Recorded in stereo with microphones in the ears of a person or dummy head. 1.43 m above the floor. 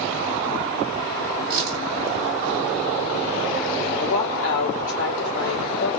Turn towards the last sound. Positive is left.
turn(degrees=75)  # may be behind; listen again after turning